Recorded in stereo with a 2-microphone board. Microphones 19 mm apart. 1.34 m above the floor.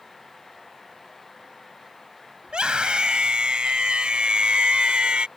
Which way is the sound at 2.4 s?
60° right (ahead or behind).